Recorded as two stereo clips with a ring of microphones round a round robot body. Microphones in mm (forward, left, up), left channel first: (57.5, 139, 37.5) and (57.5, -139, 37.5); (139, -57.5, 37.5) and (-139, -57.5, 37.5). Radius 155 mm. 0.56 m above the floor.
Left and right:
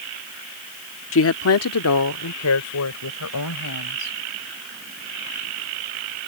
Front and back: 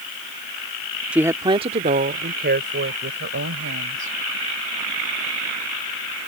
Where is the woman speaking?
95° left; by 4.1 s 130° left.